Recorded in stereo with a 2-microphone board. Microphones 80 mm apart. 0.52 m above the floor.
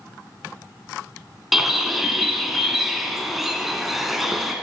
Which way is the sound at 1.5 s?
5° right (ahead or behind).